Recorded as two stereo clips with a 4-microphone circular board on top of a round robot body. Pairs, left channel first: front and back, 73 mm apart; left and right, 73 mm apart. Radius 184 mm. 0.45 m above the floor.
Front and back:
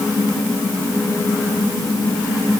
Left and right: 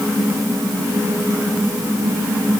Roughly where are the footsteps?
I don't hear footsteps.